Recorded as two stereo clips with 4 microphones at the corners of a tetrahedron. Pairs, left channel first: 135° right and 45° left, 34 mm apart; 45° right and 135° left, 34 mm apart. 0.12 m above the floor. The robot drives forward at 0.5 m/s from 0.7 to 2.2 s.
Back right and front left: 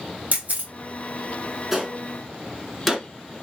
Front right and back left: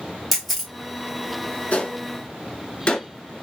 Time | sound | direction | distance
0.3 | a camera shutter | 35° left | 1.7 m
1.7 | a gunshot | 30° right | 1.8 m